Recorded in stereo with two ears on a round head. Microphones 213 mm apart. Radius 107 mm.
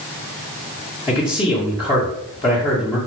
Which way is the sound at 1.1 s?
20° left (ahead or behind).